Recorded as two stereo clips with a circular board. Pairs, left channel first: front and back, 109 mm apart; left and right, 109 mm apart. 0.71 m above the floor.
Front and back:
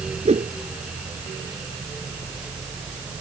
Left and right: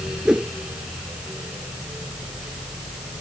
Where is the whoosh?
175° right.